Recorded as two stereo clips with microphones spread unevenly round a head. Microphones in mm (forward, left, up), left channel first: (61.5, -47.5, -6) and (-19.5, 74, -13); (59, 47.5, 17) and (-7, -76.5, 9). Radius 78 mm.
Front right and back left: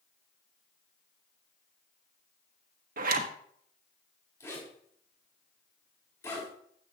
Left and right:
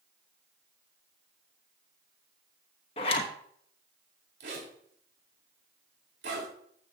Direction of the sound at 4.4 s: 130° right.